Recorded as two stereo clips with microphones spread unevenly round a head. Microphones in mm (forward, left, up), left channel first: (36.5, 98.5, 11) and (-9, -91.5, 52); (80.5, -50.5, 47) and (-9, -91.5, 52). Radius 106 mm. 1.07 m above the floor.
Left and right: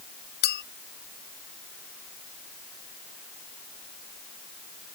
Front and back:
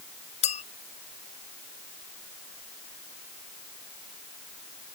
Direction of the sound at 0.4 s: 35° left.